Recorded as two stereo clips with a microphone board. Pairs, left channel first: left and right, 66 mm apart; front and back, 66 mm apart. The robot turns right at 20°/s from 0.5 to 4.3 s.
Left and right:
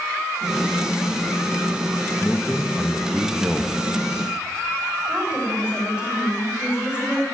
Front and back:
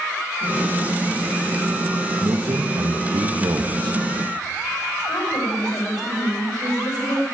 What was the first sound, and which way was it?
A man speaking, 170° left.